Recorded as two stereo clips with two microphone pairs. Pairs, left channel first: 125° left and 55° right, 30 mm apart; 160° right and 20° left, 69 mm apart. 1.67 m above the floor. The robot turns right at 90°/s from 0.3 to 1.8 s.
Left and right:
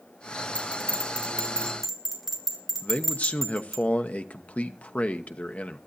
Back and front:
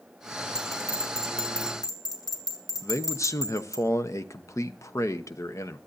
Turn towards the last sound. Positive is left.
turn(degrees=160)